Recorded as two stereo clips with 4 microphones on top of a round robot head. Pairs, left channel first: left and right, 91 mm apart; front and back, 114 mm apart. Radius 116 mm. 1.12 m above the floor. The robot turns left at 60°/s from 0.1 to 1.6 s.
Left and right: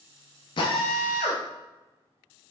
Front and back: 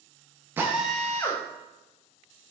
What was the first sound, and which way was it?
A drill, 115° left.